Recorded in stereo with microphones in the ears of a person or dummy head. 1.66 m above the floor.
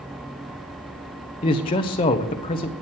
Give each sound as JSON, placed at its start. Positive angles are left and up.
{"t": 1.4, "sound": "a man speaking", "side_deg": 30, "distance_m": 0.8}